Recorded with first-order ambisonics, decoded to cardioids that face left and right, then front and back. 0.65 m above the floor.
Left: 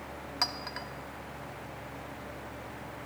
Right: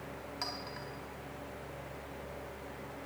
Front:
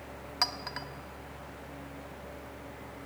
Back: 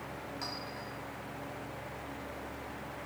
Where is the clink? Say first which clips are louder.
Left 8 dB, front 11 dB; 35° left, 0.8 m.